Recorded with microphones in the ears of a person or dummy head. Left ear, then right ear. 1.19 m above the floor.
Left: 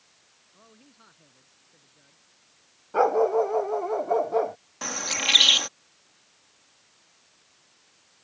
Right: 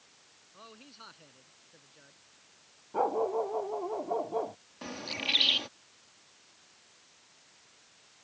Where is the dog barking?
50° left (ahead or behind).